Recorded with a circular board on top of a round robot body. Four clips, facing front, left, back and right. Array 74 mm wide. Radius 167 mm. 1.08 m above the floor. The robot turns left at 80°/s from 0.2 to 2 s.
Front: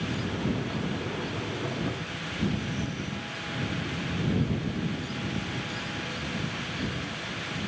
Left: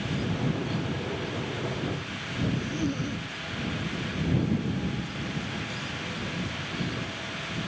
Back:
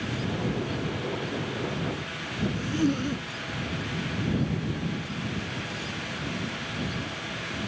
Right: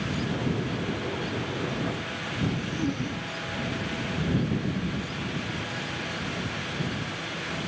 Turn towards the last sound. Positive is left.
turn(degrees=175)